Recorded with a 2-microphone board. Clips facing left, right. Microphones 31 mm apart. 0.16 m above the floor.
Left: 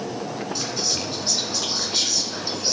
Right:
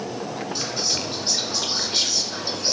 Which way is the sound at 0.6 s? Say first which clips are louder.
Right 1 dB; 5° right (ahead or behind).